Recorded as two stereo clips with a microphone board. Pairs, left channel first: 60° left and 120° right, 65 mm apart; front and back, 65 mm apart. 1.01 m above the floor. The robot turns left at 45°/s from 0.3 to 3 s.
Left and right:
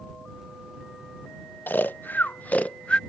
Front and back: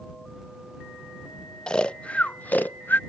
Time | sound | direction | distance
1.7 | snoring | 65° left | ?